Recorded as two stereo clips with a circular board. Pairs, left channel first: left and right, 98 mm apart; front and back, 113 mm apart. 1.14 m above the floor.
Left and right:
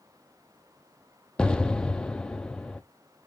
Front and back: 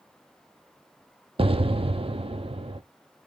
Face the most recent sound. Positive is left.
turn(degrees=170)